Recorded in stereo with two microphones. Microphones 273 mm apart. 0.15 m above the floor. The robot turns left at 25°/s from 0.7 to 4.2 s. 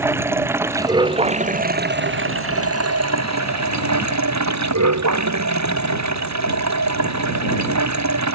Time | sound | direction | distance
0.0 | running water | 10° right | ?